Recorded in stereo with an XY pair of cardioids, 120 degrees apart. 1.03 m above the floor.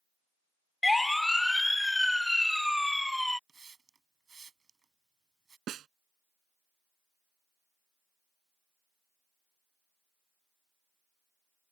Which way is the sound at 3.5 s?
30° right.